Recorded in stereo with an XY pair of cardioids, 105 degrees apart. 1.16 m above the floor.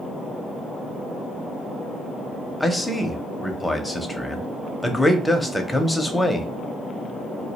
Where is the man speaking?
5° left, 0.6 m.